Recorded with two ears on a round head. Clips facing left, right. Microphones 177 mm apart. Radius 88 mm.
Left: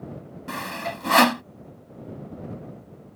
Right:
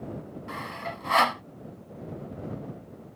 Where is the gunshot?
No gunshot in this recording.